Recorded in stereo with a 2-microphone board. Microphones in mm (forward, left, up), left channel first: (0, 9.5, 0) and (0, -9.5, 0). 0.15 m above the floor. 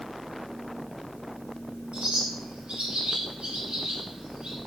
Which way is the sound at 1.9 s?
70° right (ahead or behind).